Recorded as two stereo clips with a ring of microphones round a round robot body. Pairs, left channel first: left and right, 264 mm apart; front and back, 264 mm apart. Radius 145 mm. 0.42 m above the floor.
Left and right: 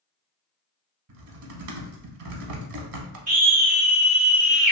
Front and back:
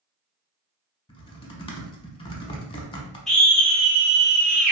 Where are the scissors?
I don't hear scissors.